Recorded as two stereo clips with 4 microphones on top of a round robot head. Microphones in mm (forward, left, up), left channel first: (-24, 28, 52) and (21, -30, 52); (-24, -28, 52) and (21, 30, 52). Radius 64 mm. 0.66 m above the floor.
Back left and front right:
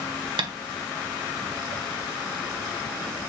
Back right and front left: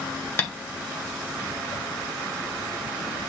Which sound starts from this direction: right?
Tapping, at 0.4 s.